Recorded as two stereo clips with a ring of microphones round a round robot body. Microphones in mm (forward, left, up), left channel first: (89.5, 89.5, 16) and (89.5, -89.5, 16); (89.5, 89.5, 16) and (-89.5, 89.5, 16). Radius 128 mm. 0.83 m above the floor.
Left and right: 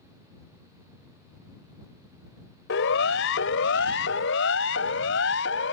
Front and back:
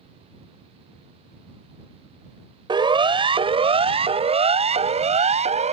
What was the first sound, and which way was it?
A siren, 115° left.